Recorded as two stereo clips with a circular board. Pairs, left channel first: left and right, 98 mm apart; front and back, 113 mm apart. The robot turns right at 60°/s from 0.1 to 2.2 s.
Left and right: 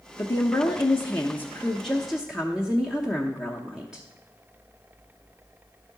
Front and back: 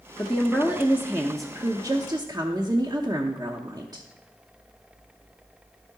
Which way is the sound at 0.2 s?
75° left.